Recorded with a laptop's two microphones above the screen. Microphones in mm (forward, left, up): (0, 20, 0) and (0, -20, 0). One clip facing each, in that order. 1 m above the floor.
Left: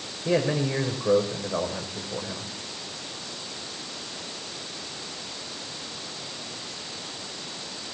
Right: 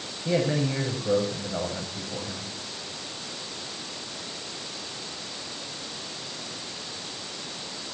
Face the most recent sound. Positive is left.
turn(degrees=65)  # may be behind; listen again after turning